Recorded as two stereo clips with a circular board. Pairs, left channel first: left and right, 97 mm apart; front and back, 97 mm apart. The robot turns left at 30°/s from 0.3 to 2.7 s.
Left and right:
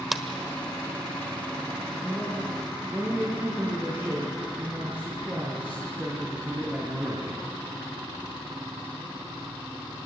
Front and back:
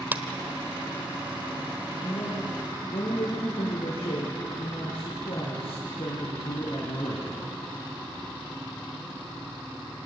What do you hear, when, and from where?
0.1 s a clap: 175° right, 1.2 m
2.0 s a man speaking: 10° left, 4.5 m; by 7.5 s 10° right, 4.5 m